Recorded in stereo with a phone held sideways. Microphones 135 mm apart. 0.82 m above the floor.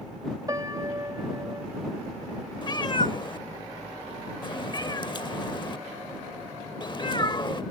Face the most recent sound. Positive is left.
turn(degrees=35)  # may be behind; listen again after turning